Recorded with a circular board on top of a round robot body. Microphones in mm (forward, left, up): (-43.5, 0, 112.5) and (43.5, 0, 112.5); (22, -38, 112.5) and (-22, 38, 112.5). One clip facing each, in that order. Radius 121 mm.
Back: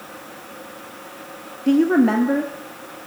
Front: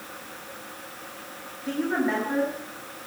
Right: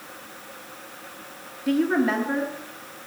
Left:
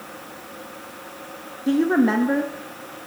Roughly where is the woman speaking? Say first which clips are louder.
Back 10 dB, left 3 dB; behind.